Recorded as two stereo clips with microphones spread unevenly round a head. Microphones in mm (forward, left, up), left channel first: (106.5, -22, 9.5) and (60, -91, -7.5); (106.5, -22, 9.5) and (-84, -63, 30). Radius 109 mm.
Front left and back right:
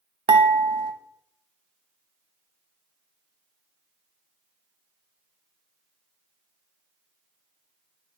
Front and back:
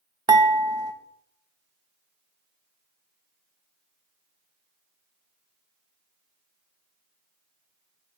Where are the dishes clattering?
100° right, 1.1 m.